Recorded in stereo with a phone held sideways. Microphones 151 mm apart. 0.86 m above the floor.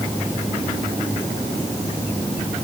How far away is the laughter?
I don't hear laughter.